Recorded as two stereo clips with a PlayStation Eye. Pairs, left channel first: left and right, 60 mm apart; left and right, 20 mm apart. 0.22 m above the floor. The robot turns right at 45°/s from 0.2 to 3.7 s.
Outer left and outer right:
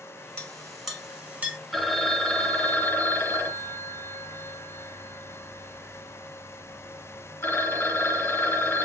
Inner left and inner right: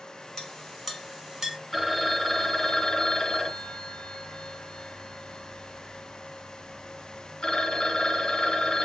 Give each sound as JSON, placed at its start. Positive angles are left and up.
{"t": 0.4, "sound": "a clink", "side_deg": 20, "distance_m": 1.5}
{"t": 1.7, "sound": "a phone ringing", "azimuth_deg": 0, "distance_m": 1.0}